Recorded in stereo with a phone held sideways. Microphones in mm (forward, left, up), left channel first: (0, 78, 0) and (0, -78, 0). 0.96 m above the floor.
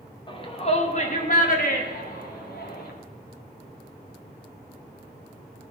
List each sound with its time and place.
0.3 s a shout: 30° left (ahead or behind), 1.4 m; by 2.9 s 70° left (ahead or behind), 2.5 m